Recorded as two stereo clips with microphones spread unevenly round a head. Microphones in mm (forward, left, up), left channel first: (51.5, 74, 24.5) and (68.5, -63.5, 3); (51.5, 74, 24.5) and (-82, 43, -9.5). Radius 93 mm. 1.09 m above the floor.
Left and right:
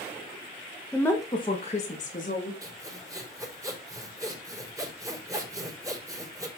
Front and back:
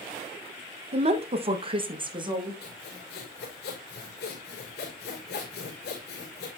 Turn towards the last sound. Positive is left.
turn(degrees=-15)